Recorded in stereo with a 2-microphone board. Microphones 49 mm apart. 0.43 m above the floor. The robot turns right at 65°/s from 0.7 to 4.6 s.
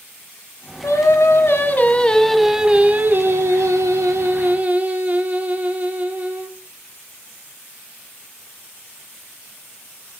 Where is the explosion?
No explosion in this recording.